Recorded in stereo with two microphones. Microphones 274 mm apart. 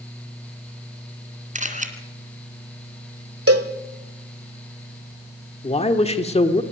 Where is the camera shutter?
30° right (ahead or behind), 2 m.